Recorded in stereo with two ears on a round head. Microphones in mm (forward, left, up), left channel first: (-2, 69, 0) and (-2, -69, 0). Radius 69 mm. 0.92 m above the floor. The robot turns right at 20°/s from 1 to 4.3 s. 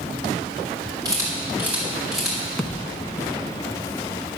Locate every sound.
1.1 s a camera shutter: 25° right (ahead or behind), 5 m; by 2.4 s centre (ahead or behind), 5 m
2.6 s a thud: centre (ahead or behind), 1.2 m; by 3.0 s 5° left (ahead or behind), 1.2 m